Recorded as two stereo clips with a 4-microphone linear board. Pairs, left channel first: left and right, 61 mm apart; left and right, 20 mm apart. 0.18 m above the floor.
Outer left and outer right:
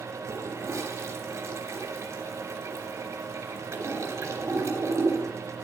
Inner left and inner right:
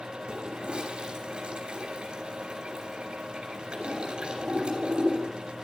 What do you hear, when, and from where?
0.3 s a toilet flushing: 50° right (ahead or behind), 3 m